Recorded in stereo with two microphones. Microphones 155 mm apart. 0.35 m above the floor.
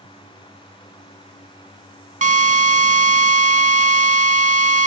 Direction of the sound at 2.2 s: 50° right (ahead or behind).